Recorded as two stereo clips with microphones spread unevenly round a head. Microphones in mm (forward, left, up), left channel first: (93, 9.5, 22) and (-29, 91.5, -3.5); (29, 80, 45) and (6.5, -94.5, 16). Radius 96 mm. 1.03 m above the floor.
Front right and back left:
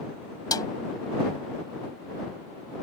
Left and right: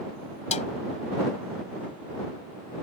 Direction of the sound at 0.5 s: 30° left.